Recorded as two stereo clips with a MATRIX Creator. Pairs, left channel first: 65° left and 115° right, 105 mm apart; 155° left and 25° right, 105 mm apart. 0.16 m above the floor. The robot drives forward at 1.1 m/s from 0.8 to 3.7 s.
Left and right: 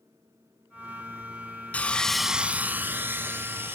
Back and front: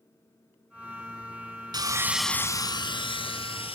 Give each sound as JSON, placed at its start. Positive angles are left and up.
{"t": 1.7, "sound": "sawing", "azimuth_deg": 0, "distance_m": 0.7}